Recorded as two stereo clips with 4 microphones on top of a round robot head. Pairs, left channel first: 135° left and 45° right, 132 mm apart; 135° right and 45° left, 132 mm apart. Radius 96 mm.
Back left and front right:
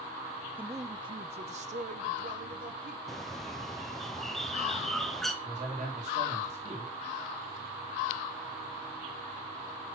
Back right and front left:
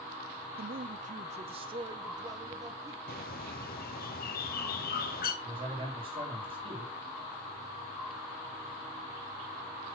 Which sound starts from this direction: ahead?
A man speaking, at 5.4 s.